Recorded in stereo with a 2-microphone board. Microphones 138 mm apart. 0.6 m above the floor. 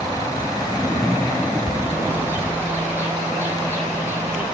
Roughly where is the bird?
Centre.